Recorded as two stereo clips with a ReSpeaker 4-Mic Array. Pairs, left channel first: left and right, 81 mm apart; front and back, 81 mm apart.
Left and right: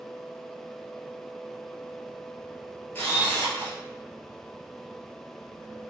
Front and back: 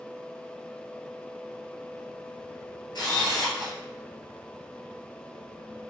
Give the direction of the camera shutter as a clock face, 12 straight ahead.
11 o'clock.